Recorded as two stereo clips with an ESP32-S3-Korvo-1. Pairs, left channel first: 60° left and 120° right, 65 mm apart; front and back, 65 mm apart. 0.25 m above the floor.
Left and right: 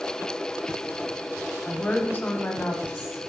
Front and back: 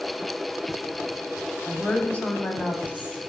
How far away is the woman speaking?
About 1.0 m.